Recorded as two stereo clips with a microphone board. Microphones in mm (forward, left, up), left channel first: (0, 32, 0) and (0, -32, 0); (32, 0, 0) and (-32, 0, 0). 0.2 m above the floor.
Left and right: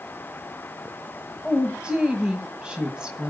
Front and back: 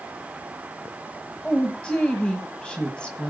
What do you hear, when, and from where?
1.4 s a woman speaking: 40° right, 1.5 m